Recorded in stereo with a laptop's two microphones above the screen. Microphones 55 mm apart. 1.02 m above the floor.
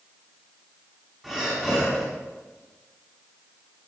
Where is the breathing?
10° right (ahead or behind), 5 m.